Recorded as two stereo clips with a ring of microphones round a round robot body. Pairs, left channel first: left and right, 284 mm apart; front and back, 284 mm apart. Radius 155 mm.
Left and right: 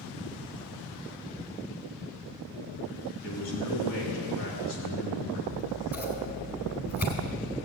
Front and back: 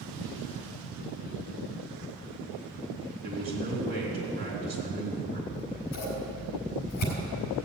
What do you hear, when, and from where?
3.2 s a man speaking: 120° left, 4.5 m
5.5 s scissors: 35° left, 3.5 m